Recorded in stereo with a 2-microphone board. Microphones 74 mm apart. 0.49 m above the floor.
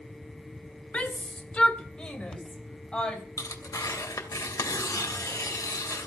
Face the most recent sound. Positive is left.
turn(degrees=50)  # may be behind; listen again after turning